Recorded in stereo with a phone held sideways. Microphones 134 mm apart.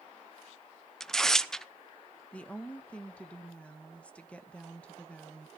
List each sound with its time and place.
1.0 s tearing paper: 5° left (ahead or behind), 0.6 m
2.3 s a woman speaking: 10° left (ahead or behind), 1.1 m